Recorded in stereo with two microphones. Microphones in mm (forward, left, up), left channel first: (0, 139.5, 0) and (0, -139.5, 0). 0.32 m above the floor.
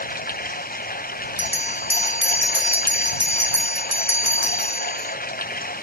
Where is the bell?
65° right (ahead or behind).